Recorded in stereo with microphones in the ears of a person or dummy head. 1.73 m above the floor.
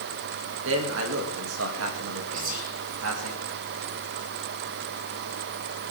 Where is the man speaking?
75° right (ahead or behind), 2.5 m.